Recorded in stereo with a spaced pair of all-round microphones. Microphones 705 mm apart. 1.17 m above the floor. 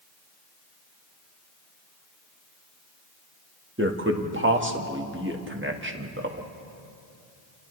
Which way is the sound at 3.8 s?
15° right (ahead or behind).